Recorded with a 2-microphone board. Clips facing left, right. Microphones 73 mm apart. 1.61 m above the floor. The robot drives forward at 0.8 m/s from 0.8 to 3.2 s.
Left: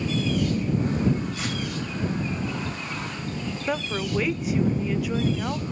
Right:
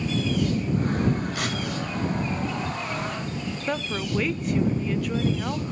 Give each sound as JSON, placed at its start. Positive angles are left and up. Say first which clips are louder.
{"t": 1.4, "sound": "tearing paper", "louder": "right 2 dB", "side_deg": -65, "distance_m": 3.0}
{"t": 3.7, "sound": "a woman speaking", "louder": "left 1 dB", "side_deg": 5, "distance_m": 0.5}